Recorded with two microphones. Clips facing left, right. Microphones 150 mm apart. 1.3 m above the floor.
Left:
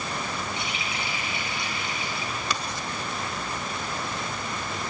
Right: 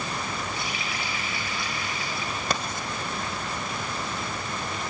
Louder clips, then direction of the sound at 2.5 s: Right 2 dB; 50° right (ahead or behind).